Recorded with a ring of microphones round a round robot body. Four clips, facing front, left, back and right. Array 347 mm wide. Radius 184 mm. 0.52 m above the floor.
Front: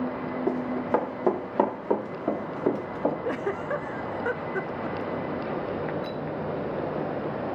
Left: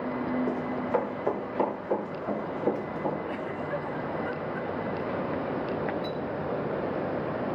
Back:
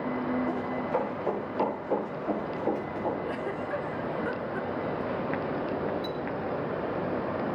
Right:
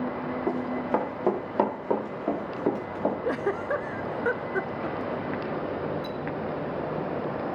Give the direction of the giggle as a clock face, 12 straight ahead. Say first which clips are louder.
Right 5 dB, front 3 dB; 2 o'clock.